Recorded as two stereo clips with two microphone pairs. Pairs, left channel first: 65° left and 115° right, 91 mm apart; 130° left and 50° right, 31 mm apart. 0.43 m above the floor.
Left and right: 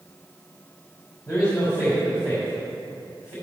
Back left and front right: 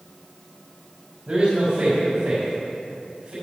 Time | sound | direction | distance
1.3 | a man speaking | 10° left | 2.5 m